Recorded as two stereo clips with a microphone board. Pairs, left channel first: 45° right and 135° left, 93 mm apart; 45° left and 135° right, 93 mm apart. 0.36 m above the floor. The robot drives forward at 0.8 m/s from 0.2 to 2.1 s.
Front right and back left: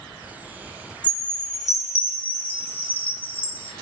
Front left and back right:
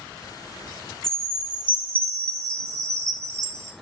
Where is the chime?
35° right, 1.1 m; by 3.7 s 105° right, 0.9 m.